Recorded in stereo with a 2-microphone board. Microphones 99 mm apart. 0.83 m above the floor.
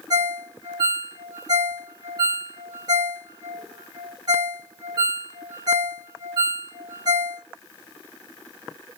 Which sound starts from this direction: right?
A ringtone, at 0.1 s.